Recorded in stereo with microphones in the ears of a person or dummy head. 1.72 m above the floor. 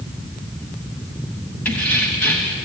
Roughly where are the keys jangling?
Centre.